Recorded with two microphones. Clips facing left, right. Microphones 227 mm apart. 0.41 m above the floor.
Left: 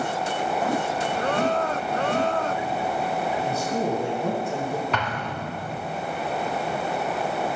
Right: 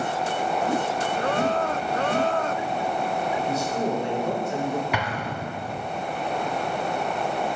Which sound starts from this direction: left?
A man speaking, at 3.4 s.